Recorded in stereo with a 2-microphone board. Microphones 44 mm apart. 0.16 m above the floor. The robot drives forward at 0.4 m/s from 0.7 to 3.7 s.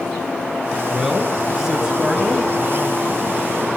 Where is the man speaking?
10° right (ahead or behind), 2.5 m.